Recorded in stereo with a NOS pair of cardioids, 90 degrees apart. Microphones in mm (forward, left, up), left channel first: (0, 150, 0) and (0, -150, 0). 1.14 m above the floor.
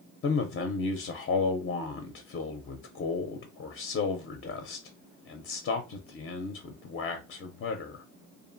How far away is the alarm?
No alarm in this recording.